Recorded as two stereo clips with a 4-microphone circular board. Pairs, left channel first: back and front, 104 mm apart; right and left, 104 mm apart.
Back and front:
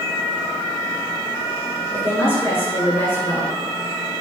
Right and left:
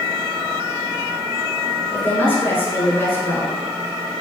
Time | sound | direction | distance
1.9 | a woman speaking | 140° right | 1.5 m